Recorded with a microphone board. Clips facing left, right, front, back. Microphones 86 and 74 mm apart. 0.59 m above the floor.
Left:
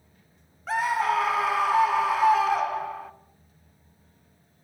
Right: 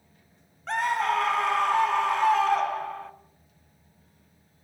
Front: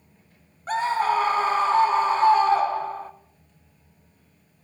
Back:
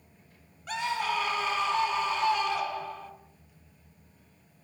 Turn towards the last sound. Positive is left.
turn(degrees=5)